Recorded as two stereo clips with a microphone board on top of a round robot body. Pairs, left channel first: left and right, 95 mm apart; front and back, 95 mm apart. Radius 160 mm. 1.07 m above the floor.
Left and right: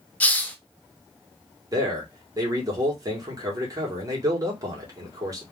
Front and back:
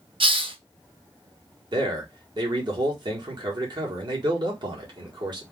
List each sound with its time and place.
0.2 s a hiss: 165° left, 1.1 m
1.7 s a man speaking: 140° right, 1.9 m